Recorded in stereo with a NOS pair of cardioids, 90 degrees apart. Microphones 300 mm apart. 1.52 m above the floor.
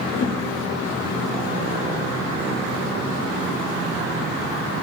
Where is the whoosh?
45° left, 1.0 m.